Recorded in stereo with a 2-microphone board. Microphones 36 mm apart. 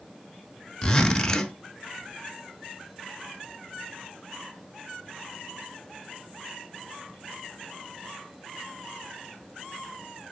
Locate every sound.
0.8 s a zipper: 20° left (ahead or behind), 0.9 m